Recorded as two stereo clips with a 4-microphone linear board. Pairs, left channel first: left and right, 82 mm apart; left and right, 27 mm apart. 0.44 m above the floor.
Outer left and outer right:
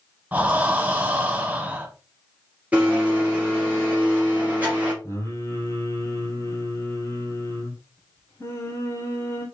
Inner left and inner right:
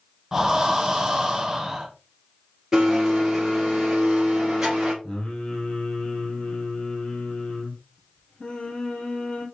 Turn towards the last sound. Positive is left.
turn(degrees=35)  # may be behind; listen again after turning